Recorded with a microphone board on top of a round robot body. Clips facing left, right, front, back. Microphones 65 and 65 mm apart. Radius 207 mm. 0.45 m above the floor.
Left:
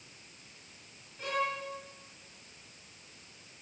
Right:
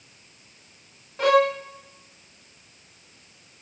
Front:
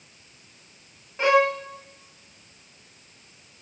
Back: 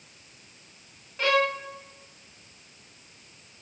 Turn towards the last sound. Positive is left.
turn(degrees=-70)